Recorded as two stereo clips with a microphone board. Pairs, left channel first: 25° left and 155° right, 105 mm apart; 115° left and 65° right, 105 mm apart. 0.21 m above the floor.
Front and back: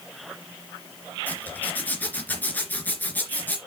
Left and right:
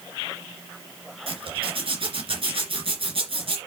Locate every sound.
1.3 s a zipper: 50° right, 2.5 m